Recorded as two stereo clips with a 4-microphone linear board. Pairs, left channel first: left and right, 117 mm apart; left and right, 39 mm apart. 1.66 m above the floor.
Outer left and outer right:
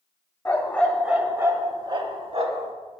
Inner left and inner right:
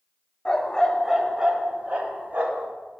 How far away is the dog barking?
About 1.4 m.